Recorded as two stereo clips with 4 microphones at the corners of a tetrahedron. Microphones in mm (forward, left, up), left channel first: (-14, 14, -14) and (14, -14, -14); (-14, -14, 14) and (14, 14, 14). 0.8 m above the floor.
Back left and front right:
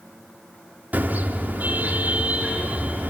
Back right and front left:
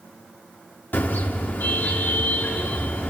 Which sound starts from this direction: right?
A car horn, at 0.9 s.